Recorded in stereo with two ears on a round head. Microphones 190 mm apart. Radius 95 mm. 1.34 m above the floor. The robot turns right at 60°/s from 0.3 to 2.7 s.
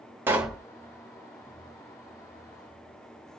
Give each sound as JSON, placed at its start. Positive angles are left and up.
{"t": 0.3, "sound": "a pop", "side_deg": -10, "distance_m": 0.9}